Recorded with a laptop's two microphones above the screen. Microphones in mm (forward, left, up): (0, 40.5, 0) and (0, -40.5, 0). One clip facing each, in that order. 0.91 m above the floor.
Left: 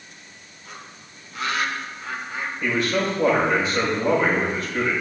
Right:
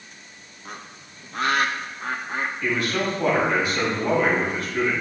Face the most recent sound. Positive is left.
turn(degrees=30)  # may be behind; listen again after turning